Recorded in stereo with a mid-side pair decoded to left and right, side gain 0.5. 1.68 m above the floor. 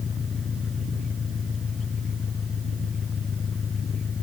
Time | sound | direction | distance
0.0 | an engine running | 40° left | ?